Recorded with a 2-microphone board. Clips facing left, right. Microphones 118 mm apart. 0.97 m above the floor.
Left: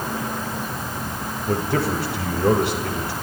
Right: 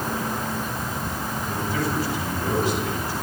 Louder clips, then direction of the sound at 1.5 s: Left 6 dB; 70° left (ahead or behind).